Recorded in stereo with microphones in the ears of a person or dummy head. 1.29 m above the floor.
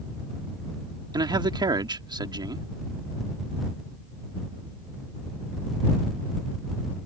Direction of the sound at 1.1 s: 25° right (ahead or behind).